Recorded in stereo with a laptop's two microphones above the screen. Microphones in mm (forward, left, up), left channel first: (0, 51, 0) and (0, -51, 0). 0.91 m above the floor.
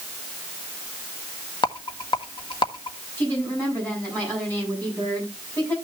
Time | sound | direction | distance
1.6 | a rattle | 50° left (ahead or behind) | 1.4 m
3.2 | a woman speaking | 20° left (ahead or behind) | 6.5 m